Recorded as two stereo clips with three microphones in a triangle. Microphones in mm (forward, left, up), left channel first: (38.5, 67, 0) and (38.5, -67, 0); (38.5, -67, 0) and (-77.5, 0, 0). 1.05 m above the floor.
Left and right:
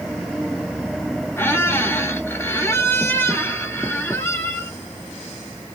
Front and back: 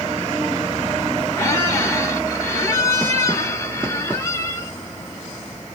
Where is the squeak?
25° left, 0.7 m.